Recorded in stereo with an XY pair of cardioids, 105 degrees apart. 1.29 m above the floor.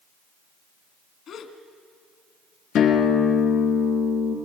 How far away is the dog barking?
No dog barking in this recording.